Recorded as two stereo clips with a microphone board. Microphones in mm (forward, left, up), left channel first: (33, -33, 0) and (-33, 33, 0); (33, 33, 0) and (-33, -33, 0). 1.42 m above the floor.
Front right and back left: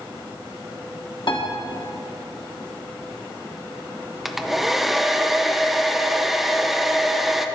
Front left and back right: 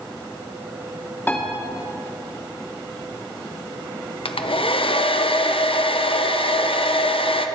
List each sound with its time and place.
1.3 s a piano: 25° right, 1.5 m
4.2 s a hair dryer: 45° left, 0.6 m